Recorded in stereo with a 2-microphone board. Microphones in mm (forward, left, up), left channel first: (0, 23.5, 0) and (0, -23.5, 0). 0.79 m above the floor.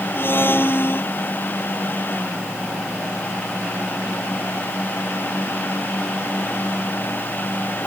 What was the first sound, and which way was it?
A blender, 50° left (ahead or behind).